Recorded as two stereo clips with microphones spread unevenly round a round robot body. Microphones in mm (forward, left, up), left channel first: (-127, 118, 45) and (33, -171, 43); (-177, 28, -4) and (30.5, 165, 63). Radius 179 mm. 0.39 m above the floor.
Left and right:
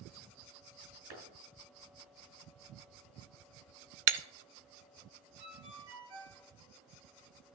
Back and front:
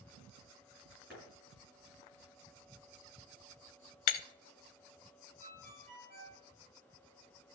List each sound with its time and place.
1.1 s a clap: 60° right, 6 m
4.1 s breaking glass: 115° right, 0.6 m
5.4 s a ringtone: 60° right, 3.5 m